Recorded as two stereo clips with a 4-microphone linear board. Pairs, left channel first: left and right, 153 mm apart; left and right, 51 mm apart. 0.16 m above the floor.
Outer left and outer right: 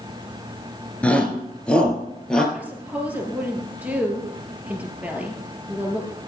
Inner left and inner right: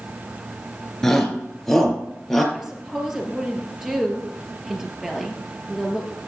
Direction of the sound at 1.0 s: 10° left (ahead or behind).